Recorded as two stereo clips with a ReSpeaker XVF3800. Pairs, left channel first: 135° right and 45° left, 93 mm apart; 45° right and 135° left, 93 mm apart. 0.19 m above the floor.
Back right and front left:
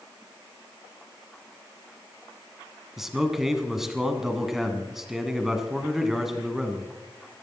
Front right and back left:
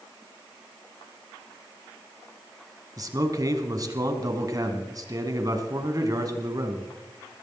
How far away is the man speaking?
About 1.9 m.